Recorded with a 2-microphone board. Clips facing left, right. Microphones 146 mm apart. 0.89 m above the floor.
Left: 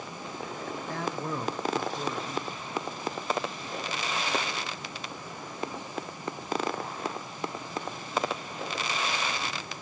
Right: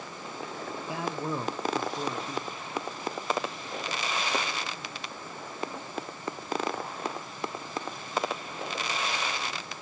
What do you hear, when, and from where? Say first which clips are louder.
0.9 s a man speaking: right 1 dB; 10° right (ahead or behind), 0.7 m